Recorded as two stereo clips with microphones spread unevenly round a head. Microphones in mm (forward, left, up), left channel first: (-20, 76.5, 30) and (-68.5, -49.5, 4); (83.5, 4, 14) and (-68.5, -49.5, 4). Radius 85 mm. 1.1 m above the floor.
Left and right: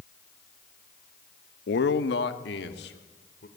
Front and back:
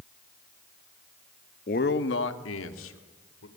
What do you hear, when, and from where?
1.7 s a man speaking: 70° left, 1.1 m; by 3.5 s 30° left, 3.5 m